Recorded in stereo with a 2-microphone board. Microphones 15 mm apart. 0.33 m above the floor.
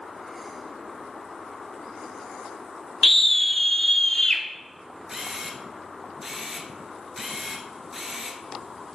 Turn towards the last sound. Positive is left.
turn(degrees=-15)  # may be behind; listen again after turning